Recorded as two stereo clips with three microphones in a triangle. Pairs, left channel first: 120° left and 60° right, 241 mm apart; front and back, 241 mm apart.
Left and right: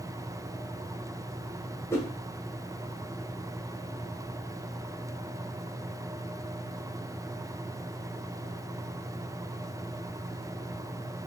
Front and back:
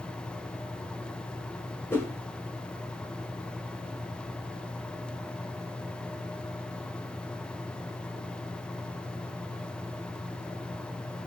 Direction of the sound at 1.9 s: 65° left.